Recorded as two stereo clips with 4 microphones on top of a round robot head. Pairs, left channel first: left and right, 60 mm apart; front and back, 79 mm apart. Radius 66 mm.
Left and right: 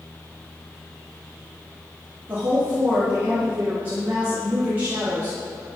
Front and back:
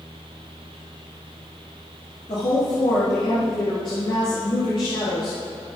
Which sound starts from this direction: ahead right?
A woman speaking, at 2.3 s.